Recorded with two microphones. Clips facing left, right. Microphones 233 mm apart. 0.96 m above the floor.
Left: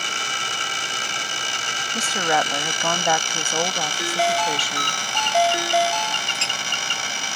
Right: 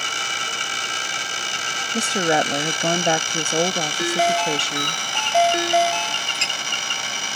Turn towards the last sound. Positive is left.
turn(degrees=-15)  # may be behind; listen again after turning